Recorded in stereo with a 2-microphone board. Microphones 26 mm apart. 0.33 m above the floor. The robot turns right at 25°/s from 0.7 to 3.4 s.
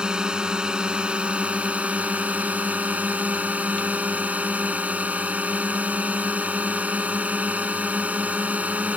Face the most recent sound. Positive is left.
turn(degrees=-80)